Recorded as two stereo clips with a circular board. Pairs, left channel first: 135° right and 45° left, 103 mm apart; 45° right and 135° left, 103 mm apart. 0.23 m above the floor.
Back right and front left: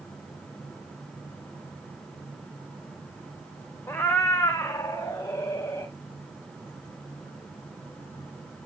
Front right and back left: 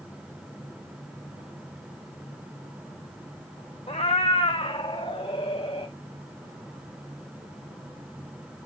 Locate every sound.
3.9 s a cat meowing: 65° right, 1.1 m; by 5.9 s 70° right, 3 m